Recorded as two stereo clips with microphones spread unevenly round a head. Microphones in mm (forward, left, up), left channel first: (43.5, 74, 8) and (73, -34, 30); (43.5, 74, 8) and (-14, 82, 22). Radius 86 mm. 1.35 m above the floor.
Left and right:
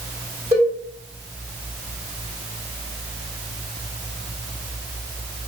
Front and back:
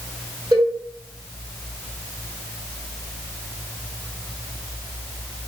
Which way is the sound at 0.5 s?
125° right.